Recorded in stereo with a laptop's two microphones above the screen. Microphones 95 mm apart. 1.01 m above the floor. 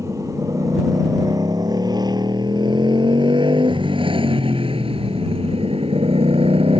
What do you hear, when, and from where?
0.0 s a motorcycle: 35° right (ahead or behind); by 6.8 s 80° right